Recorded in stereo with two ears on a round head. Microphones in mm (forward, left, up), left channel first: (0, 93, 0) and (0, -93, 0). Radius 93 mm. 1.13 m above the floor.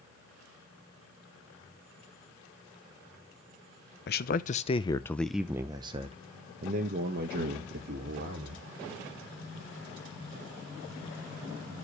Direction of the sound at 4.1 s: 50° left (ahead or behind).